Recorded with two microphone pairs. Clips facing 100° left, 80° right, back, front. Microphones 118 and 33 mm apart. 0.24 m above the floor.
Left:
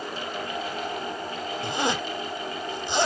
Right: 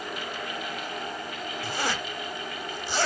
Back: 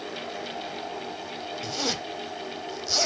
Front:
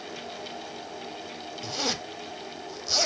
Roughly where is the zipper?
Left.